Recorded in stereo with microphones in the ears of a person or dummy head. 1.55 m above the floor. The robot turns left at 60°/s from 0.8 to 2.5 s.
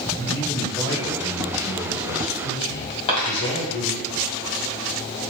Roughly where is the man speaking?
Behind.